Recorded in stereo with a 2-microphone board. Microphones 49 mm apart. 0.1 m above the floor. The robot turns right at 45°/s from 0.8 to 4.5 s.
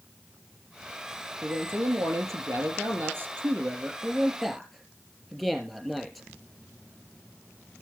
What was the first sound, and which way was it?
A man speaking, 135° right.